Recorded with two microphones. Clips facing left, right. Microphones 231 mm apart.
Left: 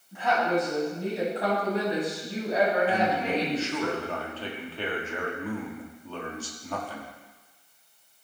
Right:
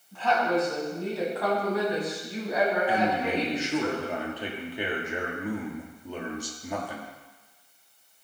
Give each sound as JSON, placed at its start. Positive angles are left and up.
{"t": 0.1, "sound": "a woman speaking", "side_deg": 15, "distance_m": 4.5}
{"t": 2.9, "sound": "a man speaking", "side_deg": -15, "distance_m": 1.6}